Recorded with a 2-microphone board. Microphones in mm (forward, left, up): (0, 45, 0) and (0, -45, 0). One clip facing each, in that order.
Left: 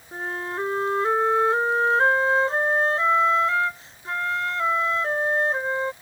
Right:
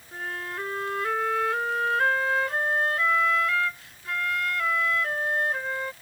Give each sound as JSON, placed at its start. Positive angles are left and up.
{"t": 0.1, "sound": "a flute", "side_deg": 30}